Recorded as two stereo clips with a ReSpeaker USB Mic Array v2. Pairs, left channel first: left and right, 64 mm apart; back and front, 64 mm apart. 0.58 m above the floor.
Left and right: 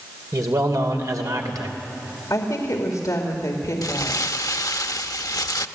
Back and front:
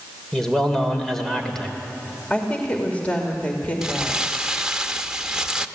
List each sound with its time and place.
0.3 s a man speaking: 100° right, 2.5 m
2.3 s a woman speaking: 115° left, 2.5 m
3.8 s crumpling: 75° left, 0.8 m